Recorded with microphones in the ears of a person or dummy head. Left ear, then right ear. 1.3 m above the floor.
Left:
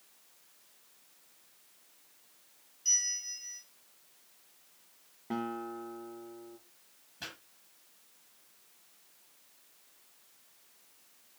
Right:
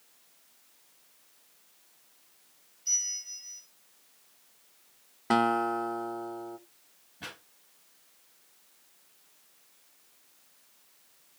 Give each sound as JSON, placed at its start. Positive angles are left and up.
{"t": 2.9, "sound": "a bell", "side_deg": 45, "distance_m": 7.5}
{"t": 5.3, "sound": "a guitar", "side_deg": -45, "distance_m": 0.5}
{"t": 7.2, "sound": "a pop", "side_deg": 45, "distance_m": 8.5}